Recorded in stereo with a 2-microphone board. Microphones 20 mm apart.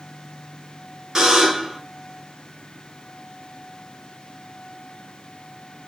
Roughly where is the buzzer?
Right.